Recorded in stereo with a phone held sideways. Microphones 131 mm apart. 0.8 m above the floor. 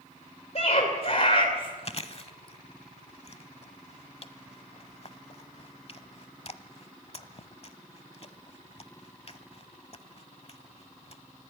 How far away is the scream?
About 3 m.